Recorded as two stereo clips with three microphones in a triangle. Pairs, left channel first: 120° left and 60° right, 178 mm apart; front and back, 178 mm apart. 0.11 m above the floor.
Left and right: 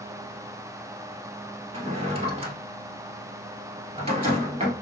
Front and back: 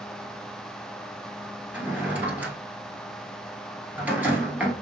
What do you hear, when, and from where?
1.7 s a drawer: 100° right, 1.3 m